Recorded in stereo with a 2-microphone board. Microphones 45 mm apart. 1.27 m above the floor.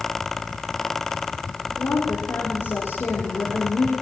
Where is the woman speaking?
70° left (ahead or behind), 4.5 m.